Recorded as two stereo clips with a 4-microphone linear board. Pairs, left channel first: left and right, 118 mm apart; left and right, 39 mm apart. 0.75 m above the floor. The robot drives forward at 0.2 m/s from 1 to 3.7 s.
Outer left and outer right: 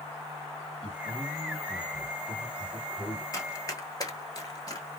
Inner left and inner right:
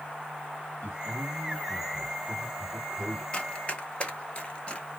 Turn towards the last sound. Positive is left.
turn(degrees=30)  # may be behind; listen again after turning